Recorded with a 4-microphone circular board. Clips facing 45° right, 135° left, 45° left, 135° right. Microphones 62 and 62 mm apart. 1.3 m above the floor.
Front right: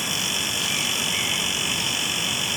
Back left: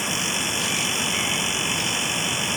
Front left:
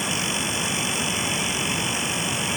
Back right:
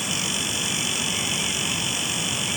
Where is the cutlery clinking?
No cutlery clinking in this recording.